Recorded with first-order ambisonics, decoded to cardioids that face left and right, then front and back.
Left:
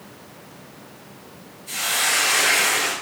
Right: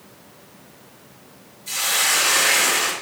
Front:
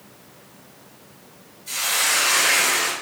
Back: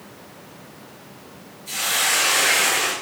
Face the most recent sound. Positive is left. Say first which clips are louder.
# right 1 dB, even
turn(degrees=-90)